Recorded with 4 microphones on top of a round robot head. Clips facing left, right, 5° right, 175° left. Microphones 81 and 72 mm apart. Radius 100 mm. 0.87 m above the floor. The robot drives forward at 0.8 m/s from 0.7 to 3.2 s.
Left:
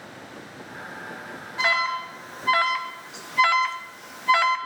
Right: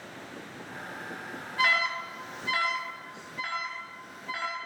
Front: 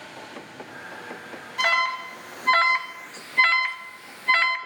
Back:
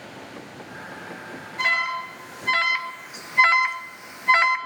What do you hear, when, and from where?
1.6 s an alarm: 20° left, 1.3 m; by 4.6 s 100° left, 0.5 m